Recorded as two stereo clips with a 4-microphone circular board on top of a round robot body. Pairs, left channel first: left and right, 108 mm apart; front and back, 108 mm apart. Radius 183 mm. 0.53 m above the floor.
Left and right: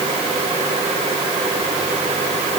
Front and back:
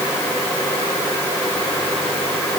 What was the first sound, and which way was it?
Only background noise.